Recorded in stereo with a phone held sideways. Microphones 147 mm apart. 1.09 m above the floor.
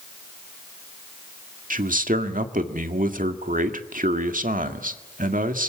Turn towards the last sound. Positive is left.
turn(degrees=-70)  # may be behind; listen again after turning